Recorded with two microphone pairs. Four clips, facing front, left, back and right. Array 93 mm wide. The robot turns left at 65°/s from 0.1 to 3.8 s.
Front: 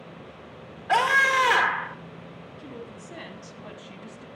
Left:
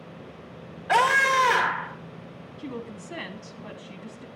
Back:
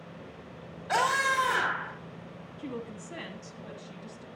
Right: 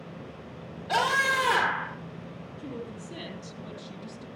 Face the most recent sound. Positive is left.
turn(degrees=60)